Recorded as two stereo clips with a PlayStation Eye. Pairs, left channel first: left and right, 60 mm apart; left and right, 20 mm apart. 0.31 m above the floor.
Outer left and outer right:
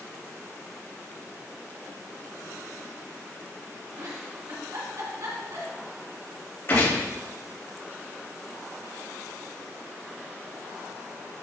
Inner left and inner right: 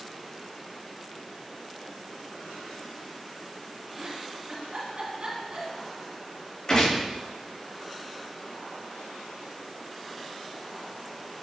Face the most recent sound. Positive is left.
turn(degrees=40)  # may be behind; listen again after turning